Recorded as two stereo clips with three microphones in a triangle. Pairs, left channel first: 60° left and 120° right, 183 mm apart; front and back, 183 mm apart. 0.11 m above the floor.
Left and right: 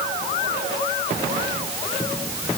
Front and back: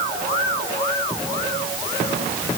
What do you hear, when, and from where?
Only background noise.